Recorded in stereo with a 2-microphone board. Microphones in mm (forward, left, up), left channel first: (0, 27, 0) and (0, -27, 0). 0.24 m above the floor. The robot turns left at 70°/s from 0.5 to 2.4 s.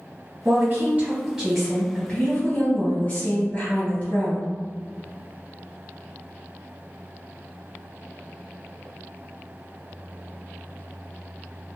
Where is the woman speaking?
95° right, 1.7 m; by 4.5 s 130° left, 1.7 m.